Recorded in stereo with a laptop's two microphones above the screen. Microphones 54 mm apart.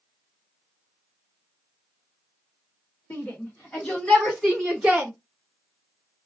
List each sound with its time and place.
3.1 s a shout: 50° left (ahead or behind), 1.4 m; by 5.1 s 20° right (ahead or behind), 1.1 m